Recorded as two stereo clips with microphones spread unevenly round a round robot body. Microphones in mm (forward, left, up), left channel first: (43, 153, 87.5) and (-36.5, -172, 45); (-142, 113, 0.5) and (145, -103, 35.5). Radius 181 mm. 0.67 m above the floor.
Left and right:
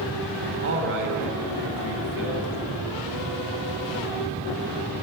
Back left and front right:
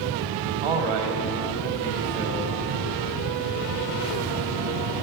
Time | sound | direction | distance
0.6 | a man speaking | 50° right | 3 m